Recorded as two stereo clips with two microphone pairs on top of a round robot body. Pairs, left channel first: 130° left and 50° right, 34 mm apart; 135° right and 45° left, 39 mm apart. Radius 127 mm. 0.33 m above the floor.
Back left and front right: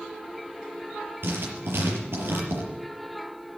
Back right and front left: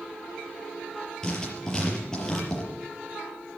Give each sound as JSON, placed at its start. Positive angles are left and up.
{"t": 1.2, "sound": "writing", "azimuth_deg": -60, "distance_m": 5.5}